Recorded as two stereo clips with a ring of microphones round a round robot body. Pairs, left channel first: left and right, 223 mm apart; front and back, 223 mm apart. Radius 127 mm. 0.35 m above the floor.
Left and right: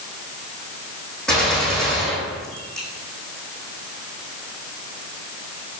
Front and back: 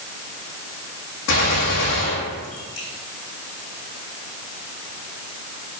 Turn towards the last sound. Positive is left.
turn(degrees=5)